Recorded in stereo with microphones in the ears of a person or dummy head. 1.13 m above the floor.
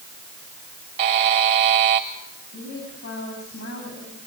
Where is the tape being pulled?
No tape being pulled in this recording.